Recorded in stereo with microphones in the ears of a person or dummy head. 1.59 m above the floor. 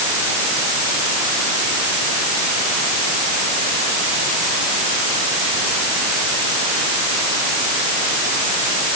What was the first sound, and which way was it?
Only background noise.